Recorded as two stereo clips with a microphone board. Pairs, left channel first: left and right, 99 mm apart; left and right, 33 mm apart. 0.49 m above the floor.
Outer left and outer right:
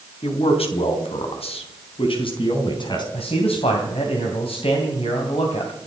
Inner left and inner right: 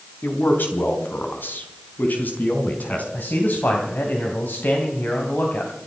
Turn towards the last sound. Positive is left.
turn(degrees=75)  # may be behind; listen again after turning